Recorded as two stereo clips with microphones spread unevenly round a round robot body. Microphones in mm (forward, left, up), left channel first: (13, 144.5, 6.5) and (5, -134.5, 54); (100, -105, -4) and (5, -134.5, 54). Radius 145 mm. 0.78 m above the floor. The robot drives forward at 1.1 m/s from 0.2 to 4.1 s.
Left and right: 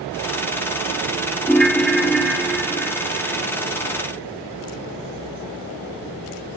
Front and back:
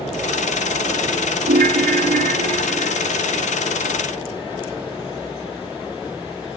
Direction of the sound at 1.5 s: 170° left.